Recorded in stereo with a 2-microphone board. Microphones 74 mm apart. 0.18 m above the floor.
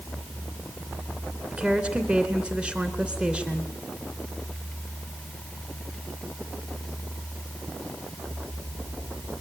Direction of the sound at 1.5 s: 15° right (ahead or behind).